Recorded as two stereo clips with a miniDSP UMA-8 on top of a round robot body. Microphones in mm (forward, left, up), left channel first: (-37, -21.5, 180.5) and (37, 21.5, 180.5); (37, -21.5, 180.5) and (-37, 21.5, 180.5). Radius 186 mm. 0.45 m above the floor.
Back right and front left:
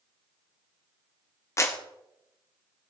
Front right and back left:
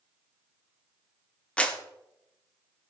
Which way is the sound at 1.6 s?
105° right.